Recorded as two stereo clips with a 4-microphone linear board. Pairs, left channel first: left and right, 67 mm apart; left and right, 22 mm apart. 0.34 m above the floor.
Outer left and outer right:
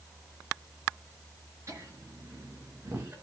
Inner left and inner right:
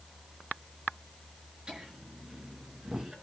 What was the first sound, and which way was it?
Laughter, 40° right (ahead or behind).